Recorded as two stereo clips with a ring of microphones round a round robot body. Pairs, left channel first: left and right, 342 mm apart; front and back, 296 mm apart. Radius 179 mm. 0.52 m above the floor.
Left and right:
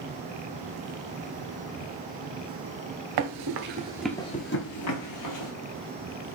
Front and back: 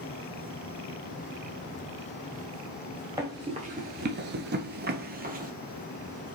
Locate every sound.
3.2 s running footsteps: 100° right, 0.7 m; by 5.5 s 120° left, 1.1 m